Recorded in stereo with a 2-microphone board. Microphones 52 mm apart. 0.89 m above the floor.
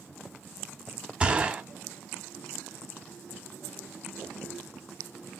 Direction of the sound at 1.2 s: 25° right (ahead or behind).